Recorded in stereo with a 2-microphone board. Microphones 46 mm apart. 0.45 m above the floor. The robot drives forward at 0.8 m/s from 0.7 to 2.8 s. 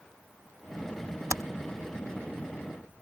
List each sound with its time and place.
1.3 s typing on a keyboard: 85° right; by 1.4 s 80° right